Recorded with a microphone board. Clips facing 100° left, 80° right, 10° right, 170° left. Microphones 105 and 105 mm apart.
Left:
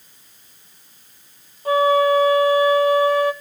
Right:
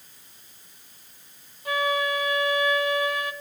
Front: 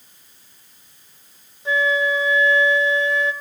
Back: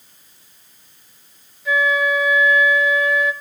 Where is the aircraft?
I don't hear an aircraft.